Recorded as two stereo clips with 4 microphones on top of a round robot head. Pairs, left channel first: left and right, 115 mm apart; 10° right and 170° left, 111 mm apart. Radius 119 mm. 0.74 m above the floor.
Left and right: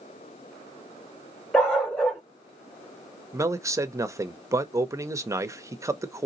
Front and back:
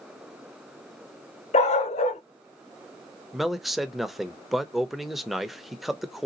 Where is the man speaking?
105° right, 0.7 m.